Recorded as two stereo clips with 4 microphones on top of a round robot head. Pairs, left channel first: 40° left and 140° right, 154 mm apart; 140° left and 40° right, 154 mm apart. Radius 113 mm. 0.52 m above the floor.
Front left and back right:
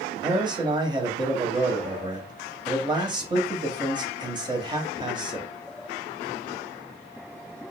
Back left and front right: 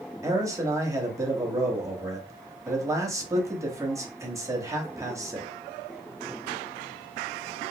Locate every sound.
0.2 s a man speaking: 100° right, 1.0 m